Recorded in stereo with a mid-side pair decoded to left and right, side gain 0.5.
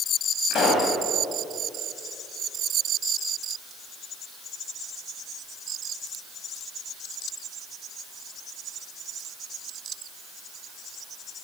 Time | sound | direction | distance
0.5 | a pop | 60° left | 3 m